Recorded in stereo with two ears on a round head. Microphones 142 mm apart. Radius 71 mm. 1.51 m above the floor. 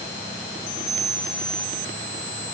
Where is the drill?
No drill in this recording.